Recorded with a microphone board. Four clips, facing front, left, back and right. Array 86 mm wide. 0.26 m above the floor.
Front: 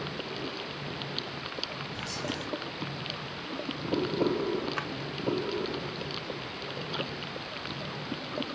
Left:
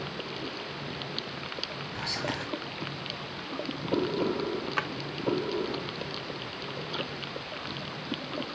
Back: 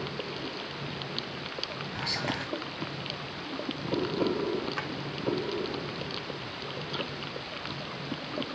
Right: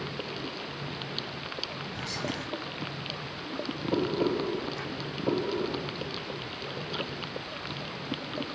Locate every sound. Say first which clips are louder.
1.9 s whispering: left 2 dB, back 3 dB; 145° left, 1.4 m
4.8 s a drawer: left 5 dB, even; 85° left, 0.6 m